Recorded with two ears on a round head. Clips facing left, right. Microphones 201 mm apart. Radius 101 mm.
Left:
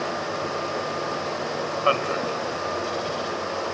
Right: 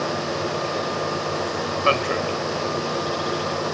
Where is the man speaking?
30° right (ahead or behind), 1.9 m.